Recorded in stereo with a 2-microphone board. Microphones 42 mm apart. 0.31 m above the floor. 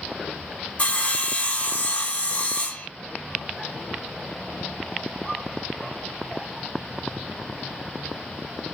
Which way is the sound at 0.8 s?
30° left (ahead or behind).